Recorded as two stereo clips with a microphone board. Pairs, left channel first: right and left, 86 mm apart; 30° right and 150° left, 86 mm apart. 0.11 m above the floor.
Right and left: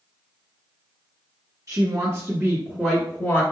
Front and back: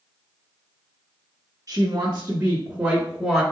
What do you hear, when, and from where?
1.7 s a woman speaking: 115° left, 2 m; by 3.4 s 110° right, 1.5 m